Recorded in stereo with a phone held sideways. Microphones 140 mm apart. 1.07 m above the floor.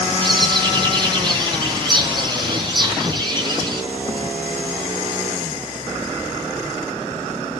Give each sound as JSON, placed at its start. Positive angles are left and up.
{"t": 0.2, "sound": "a bird", "side_deg": -35, "distance_m": 4.0}